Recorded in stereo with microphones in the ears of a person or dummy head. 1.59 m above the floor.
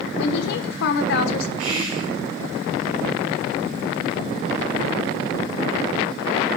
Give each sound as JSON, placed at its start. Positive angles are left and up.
{"t": 0.2, "sound": "a woman speaking", "side_deg": 65, "distance_m": 1.1}
{"t": 1.6, "sound": "whispering", "side_deg": -80, "distance_m": 1.8}